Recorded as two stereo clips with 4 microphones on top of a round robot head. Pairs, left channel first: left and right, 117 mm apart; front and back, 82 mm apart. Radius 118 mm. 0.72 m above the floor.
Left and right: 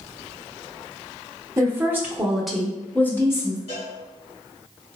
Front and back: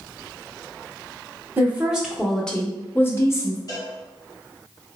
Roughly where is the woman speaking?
Behind right.